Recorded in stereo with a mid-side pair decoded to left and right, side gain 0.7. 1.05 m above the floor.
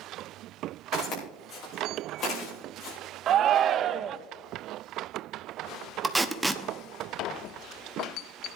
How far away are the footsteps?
About 5.5 m.